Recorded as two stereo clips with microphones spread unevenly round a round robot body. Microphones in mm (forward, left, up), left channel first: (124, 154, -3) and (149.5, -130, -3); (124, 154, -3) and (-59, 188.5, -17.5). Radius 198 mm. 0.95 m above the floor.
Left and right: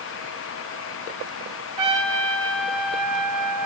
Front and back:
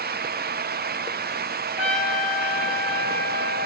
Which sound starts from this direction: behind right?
A trumpet, at 1.8 s.